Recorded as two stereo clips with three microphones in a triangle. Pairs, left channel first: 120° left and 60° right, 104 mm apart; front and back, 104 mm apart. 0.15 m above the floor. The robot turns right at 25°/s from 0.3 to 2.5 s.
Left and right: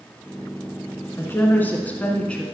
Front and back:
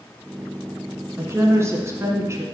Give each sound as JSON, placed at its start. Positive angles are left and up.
{"t": 1.2, "sound": "a woman speaking", "azimuth_deg": 155, "distance_m": 1.6}